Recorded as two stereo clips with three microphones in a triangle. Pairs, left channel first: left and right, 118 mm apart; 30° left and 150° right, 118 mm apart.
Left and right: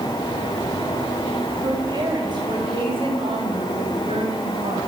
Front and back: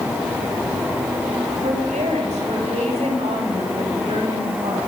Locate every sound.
1.6 s a woman speaking: 140° right, 5 m; by 4.8 s 120° right, 6.5 m